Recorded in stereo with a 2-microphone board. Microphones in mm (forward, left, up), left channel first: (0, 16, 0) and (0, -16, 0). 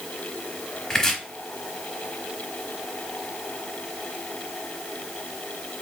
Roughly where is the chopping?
Left.